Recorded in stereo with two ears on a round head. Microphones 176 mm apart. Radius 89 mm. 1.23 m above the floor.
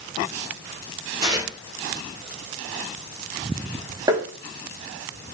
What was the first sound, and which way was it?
Tearing paper, 55° right (ahead or behind).